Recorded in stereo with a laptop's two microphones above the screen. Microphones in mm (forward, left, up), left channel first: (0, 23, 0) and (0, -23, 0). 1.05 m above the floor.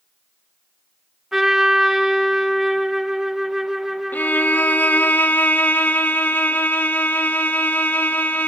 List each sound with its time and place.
1.3 s a trumpet: 10° right (ahead or behind), 1.3 m
4.1 s a violin: 40° left (ahead or behind), 0.9 m